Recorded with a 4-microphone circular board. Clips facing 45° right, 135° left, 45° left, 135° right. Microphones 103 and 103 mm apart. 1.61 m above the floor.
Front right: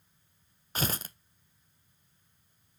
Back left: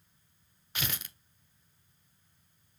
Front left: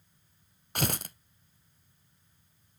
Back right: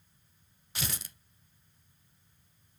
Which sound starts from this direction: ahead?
Tearing paper, at 0.8 s.